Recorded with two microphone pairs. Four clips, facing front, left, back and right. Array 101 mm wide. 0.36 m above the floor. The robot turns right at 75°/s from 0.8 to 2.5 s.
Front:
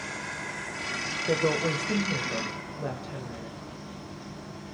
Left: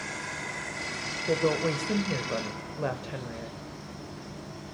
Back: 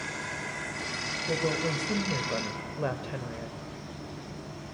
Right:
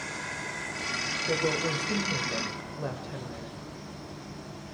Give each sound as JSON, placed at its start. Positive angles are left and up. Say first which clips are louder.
{"t": 1.3, "sound": "a woman speaking", "louder": "left 3 dB, front 4 dB", "azimuth_deg": 40, "distance_m": 1.4}